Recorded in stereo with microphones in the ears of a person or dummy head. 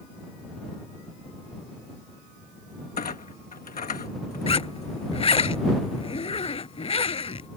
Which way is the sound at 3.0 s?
30° left (ahead or behind).